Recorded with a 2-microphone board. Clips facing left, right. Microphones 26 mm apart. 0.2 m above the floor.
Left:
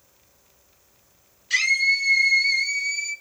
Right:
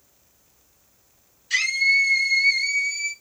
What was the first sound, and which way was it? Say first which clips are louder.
A scream: even; 15° left (ahead or behind).